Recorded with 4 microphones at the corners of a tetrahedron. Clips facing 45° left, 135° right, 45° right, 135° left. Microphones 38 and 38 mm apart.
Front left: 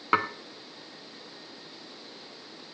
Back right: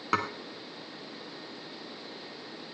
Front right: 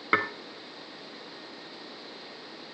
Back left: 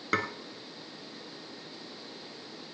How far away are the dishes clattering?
About 0.8 m.